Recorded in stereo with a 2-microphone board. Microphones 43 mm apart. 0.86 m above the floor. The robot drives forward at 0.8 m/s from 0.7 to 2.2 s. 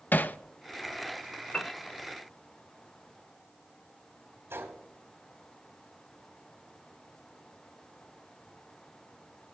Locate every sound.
0.1 s hammering: 45° left (ahead or behind), 0.6 m
1.5 s a piano: 25° left (ahead or behind), 0.8 m; by 1.7 s 30° left (ahead or behind), 0.7 m
4.5 s a gunshot: 75° right (ahead or behind), 3.5 m